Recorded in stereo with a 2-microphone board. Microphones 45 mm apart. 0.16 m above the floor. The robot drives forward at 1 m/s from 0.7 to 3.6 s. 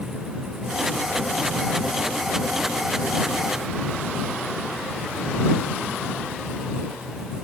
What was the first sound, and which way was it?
Only background noise.